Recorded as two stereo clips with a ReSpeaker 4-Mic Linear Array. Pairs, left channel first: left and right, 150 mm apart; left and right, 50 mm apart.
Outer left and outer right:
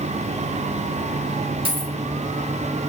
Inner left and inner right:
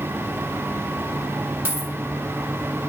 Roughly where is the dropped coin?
Right.